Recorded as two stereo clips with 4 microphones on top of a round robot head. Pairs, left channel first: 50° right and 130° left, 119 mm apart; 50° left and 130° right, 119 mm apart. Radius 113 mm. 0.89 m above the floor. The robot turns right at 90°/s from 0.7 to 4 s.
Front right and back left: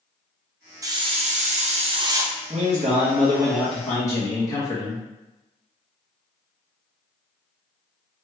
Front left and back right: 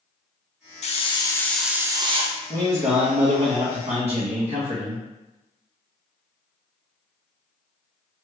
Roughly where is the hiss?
Left.